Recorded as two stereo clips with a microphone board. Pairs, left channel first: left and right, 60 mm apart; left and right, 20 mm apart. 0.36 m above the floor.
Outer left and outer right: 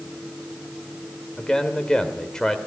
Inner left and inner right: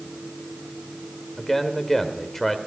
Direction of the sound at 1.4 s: 10° left (ahead or behind).